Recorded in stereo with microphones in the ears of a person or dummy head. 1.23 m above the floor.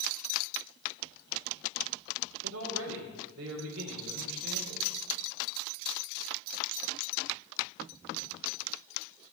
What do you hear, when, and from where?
2.4 s a man speaking: 65° right (ahead or behind), 3 m